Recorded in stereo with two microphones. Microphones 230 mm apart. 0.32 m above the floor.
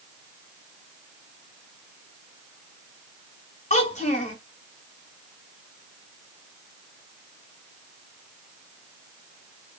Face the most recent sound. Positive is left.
turn(degrees=30)  # may be behind; listen again after turning